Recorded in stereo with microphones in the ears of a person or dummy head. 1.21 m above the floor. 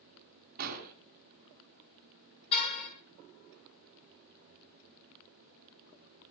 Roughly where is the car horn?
Left.